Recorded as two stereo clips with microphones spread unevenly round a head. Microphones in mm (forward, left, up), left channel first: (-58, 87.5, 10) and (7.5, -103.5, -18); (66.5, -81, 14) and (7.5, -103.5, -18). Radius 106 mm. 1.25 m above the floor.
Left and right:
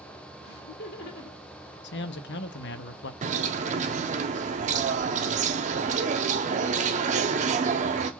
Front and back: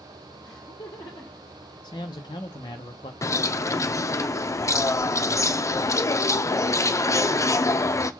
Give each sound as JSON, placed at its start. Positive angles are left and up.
{"t": 0.4, "sound": "laughter", "azimuth_deg": 65, "distance_m": 2.0}
{"t": 1.8, "sound": "a man speaking", "azimuth_deg": 65, "distance_m": 0.6}
{"t": 3.2, "sound": "a bird", "azimuth_deg": -35, "distance_m": 0.7}